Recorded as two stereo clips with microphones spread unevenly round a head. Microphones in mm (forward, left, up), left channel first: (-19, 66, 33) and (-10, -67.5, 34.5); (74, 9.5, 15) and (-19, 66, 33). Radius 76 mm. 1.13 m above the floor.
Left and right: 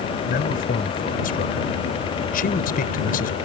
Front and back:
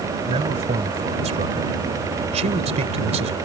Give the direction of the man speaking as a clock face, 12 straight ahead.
8 o'clock.